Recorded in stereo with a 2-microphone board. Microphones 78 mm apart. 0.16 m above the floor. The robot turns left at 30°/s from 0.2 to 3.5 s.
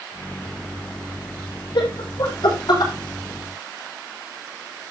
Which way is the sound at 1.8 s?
75° left (ahead or behind).